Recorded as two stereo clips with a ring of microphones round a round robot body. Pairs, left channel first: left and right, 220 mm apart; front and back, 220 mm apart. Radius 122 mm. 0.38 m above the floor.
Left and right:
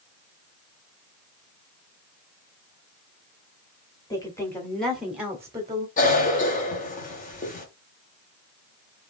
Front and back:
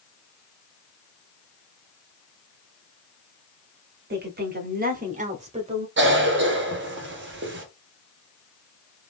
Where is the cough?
145° left, 2.0 m.